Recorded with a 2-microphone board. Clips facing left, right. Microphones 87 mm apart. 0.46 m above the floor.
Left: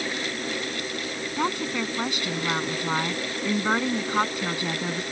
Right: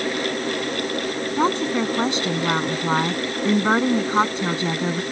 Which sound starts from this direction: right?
A woman speaking, at 1.4 s.